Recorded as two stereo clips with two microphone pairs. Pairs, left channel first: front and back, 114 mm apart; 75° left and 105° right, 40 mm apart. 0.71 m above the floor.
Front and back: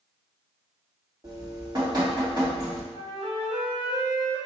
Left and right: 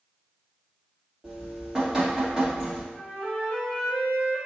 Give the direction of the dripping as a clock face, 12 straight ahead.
6 o'clock.